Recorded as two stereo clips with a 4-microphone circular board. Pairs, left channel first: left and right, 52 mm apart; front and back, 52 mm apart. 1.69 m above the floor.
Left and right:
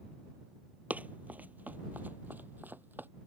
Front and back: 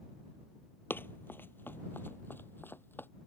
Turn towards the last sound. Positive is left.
turn(degrees=-45)